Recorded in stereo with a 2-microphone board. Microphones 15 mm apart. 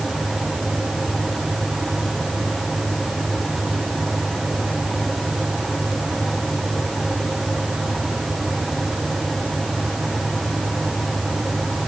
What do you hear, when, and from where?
Only background noise.